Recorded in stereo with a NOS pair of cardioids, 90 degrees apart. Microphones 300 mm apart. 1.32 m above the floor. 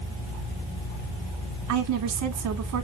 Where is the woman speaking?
70° right, 1.5 m.